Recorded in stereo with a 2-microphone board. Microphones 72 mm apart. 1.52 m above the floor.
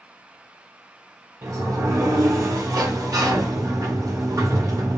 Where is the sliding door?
50° right (ahead or behind), 1.0 m.